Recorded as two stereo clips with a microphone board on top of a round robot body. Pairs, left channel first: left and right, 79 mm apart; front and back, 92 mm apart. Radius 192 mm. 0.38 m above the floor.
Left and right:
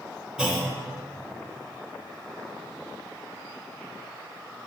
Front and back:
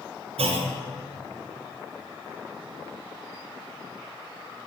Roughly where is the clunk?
Behind.